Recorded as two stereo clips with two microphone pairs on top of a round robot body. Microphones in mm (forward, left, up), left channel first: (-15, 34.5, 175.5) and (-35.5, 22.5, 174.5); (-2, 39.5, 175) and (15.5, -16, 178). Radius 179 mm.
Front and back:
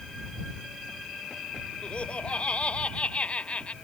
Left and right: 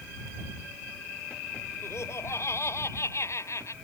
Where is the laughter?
65° left; by 3.7 s 70° left.